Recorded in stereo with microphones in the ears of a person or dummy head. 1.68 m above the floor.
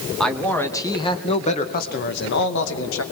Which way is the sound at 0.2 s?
Centre (ahead or behind).